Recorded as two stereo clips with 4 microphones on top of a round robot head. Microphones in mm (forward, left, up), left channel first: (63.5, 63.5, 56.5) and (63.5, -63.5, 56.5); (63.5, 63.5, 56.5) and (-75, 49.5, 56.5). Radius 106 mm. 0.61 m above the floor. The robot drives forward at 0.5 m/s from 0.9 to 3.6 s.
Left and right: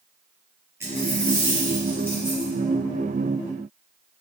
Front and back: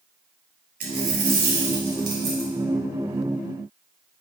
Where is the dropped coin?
165° right, 1.9 m; by 2.5 s 170° right, 2.5 m.